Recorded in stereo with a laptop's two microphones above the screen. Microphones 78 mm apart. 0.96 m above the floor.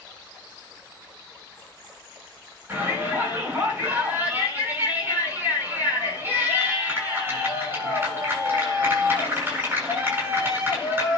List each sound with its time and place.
2.7 s a shout: 30° right (ahead or behind), 9 m